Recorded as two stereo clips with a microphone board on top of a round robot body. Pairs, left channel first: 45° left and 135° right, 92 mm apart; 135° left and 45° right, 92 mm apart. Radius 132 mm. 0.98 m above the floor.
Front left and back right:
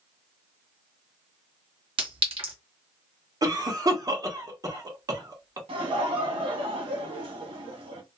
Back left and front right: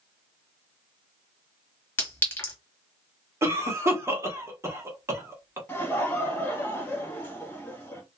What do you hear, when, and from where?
2.0 s a clink: 155° right, 1.6 m
3.4 s a cough: 100° right, 1.2 m
5.7 s laughter: 155° right, 1.5 m